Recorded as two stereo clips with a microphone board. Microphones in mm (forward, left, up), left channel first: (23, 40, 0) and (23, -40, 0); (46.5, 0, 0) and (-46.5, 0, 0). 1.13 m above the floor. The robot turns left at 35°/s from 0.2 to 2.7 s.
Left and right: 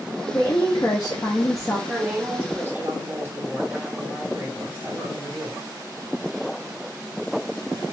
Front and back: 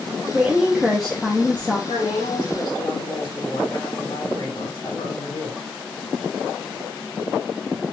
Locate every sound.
0.3 s a woman speaking: 110° left, 0.6 m; by 1.8 s 60° left, 0.6 m
1.9 s a woman speaking: straight ahead, 2.5 m; by 5.6 s 30° right, 2.5 m